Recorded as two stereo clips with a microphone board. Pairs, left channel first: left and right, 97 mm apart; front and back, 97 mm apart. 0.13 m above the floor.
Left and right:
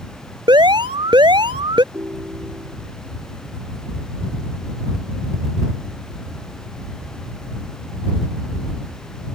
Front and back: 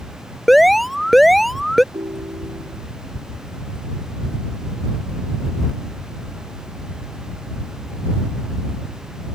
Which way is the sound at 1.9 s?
145° right.